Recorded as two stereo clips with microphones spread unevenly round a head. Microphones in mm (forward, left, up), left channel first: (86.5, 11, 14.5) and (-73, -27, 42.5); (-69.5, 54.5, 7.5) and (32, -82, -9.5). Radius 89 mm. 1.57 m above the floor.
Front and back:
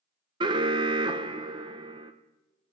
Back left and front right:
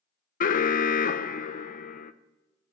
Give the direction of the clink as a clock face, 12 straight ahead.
No clink in this recording.